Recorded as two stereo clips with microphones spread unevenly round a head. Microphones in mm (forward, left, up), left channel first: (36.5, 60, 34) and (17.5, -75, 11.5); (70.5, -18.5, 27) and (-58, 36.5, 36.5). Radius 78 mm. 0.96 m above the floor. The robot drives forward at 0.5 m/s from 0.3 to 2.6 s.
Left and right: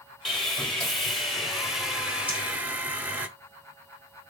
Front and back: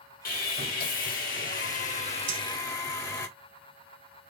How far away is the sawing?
About 1.4 m.